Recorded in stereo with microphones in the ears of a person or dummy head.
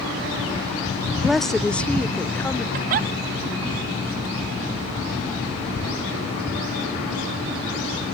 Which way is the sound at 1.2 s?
5° right (ahead or behind).